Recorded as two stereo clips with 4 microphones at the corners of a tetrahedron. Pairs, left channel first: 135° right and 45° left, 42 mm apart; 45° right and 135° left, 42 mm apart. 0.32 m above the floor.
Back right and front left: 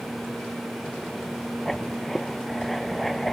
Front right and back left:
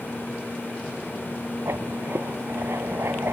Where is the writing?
135° left.